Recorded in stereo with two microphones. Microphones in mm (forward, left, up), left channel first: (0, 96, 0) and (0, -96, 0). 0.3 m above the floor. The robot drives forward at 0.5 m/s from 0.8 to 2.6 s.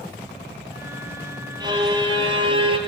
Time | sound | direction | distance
1.6 | a violin | 25° right (ahead or behind) | 3.5 m